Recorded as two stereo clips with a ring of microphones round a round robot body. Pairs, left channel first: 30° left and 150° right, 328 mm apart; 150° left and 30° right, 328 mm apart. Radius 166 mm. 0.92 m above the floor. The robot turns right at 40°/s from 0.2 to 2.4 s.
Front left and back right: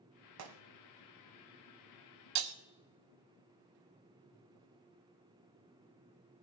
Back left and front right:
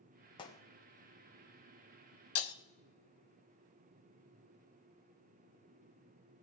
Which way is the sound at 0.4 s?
140° right.